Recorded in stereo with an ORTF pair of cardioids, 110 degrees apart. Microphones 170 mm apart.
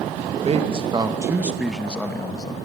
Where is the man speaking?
35° right, 2 m; by 2.5 s 25° left, 2 m.